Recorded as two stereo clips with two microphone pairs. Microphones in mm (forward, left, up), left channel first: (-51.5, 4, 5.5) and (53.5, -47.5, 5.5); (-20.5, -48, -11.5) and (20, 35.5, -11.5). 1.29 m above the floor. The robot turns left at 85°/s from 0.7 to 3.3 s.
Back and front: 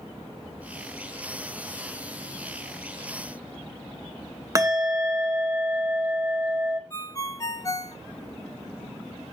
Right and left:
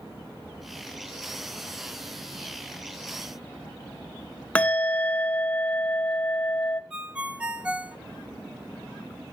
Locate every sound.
4.5 s a bell: 55° right, 0.9 m
6.9 s a ringtone: 130° left, 0.7 m